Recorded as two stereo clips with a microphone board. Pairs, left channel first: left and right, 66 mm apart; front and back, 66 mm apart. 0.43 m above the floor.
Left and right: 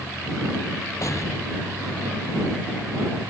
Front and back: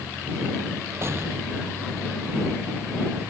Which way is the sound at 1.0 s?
130° left.